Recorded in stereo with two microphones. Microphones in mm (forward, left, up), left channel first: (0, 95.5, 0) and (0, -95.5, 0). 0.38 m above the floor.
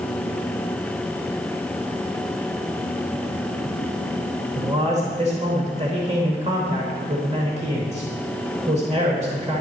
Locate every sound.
4.5 s a man speaking: 35° right (ahead or behind), 1.1 m